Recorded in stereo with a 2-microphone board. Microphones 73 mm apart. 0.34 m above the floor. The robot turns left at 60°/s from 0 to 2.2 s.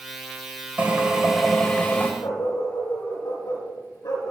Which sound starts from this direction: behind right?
A drill, at 0.8 s.